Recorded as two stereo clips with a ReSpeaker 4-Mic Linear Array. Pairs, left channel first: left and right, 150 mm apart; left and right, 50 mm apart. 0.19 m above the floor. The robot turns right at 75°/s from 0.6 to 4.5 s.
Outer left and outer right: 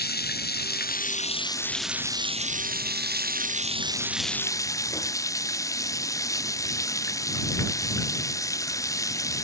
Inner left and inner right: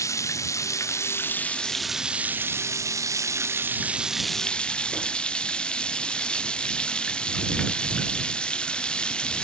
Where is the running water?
85° left; by 9.4 s 20° left.